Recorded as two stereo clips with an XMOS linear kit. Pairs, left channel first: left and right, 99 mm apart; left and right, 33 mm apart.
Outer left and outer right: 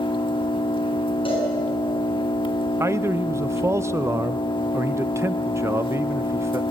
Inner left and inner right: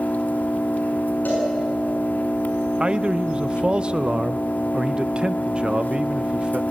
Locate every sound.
0.0 s an engine running: 60° left (ahead or behind), 1.3 m
1.2 s a cowbell: 60° left (ahead or behind), 8 m
2.8 s a man speaking: 30° right (ahead or behind), 0.5 m